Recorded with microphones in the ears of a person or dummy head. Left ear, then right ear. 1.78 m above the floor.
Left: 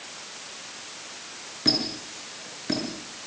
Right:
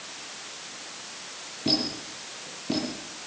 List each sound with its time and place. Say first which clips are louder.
1.6 s a squeak: left 2 dB; 60° left (ahead or behind), 6.5 m